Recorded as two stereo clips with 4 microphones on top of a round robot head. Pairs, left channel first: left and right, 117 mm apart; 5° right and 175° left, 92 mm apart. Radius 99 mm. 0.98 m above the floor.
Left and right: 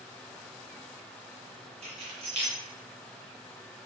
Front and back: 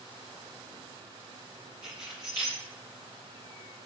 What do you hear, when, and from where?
1.8 s keys jangling: 125° right, 1.3 m